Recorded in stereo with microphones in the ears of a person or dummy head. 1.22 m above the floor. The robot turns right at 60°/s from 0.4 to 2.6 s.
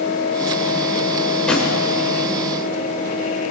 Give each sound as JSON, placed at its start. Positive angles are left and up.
{"t": 1.5, "sound": "a drawer", "side_deg": 15, "distance_m": 2.5}